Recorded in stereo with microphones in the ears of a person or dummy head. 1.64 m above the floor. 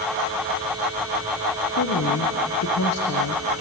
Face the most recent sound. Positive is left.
turn(degrees=85)